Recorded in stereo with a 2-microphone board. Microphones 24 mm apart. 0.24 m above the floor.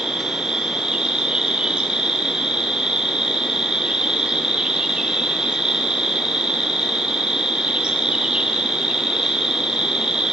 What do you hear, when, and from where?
0.0 s an insect: 45° right (ahead or behind), 6 m